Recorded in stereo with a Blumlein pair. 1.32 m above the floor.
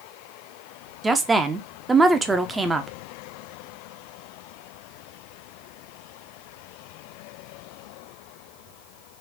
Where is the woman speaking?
15° right, 0.6 m.